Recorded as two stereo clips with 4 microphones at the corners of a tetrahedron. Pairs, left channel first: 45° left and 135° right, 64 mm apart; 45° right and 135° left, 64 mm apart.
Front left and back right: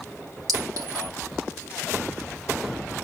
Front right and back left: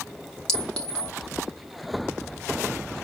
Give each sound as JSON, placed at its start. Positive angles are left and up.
{"t": 0.5, "sound": "a clink", "azimuth_deg": -125, "distance_m": 2.5}